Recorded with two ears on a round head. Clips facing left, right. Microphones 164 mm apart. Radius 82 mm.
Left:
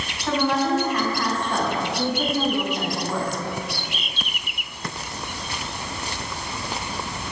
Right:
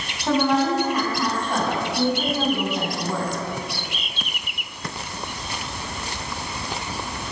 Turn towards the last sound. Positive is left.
turn(degrees=0)  # may be behind; listen again after turning